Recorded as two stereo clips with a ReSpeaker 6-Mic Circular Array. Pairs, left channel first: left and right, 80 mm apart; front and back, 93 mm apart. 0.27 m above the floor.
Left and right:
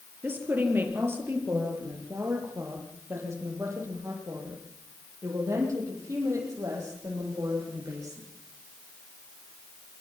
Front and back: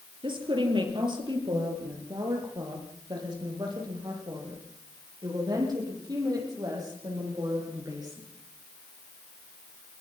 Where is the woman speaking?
155° right, 6.5 m; by 8.2 s 135° right, 12.5 m.